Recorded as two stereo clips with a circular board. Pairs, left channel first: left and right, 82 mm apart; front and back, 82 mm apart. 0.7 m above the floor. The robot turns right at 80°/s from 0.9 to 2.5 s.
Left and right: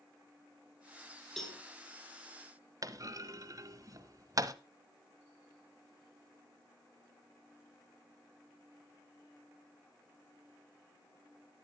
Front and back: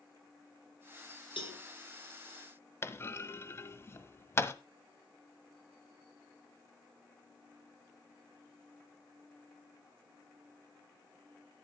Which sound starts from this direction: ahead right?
A clunk, at 2.8 s.